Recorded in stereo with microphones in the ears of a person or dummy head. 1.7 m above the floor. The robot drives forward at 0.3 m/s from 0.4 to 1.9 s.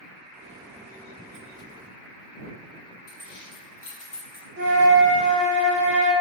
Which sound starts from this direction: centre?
Keys jangling, at 3.1 s.